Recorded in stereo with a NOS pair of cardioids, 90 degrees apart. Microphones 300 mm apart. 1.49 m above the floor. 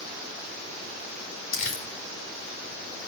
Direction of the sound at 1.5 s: 45° left.